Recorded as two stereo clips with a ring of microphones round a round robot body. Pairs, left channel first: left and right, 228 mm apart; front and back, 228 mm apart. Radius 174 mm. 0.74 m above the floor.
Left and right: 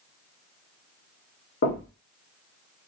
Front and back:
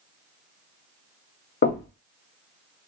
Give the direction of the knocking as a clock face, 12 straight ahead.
11 o'clock.